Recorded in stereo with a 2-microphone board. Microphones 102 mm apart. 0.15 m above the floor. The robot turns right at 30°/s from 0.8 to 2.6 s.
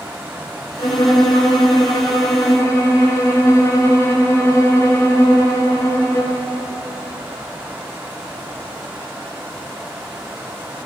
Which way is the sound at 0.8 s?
85° left.